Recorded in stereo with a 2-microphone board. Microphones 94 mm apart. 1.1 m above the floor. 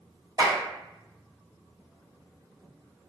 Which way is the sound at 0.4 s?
45° right (ahead or behind).